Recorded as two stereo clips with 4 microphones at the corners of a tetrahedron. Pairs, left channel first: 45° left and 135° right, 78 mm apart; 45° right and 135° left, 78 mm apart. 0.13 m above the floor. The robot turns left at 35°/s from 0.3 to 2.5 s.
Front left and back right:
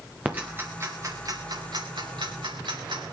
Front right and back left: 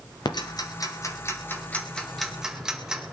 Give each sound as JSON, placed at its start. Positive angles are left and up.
{"t": 0.2, "sound": "ticking", "azimuth_deg": -65, "distance_m": 2.5}